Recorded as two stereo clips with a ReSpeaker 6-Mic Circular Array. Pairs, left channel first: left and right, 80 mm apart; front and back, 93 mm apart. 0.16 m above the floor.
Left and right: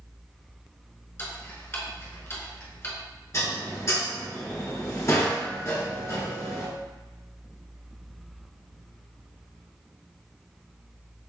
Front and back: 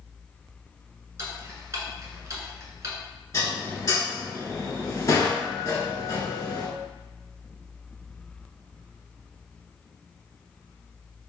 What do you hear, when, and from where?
1.2 s ticking: 135° left, 1.0 m
3.3 s dishes clattering: 50° left, 1.4 m